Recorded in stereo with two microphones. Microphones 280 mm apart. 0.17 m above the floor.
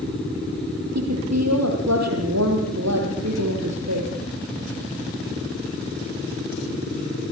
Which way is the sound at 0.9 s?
70° right (ahead or behind).